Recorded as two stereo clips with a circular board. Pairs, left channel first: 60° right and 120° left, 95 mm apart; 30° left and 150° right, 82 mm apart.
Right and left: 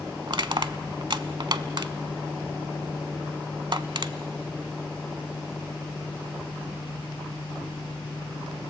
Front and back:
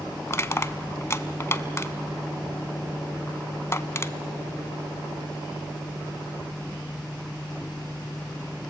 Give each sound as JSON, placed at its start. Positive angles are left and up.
{"t": 0.3, "sound": "crushing", "azimuth_deg": 85, "distance_m": 0.6}